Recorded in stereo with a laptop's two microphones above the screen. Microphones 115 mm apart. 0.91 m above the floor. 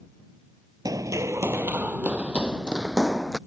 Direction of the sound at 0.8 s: 30° right (ahead or behind).